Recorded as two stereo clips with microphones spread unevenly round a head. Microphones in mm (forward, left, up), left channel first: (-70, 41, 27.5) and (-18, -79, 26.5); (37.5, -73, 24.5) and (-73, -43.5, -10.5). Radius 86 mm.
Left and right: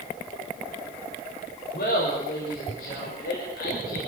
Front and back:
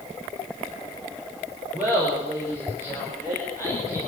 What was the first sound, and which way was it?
Laughter, 85° left.